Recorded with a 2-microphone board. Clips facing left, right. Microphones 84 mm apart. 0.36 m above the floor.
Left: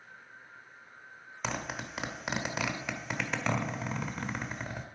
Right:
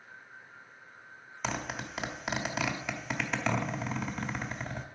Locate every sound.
1.4 s a zipper: 5° left (ahead or behind), 1.1 m